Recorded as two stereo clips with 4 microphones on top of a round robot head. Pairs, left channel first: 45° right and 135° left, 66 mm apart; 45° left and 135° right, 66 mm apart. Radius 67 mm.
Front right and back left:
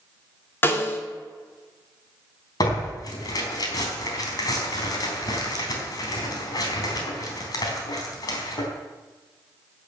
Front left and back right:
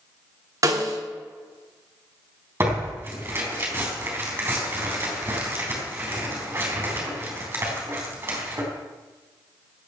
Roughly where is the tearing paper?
Right.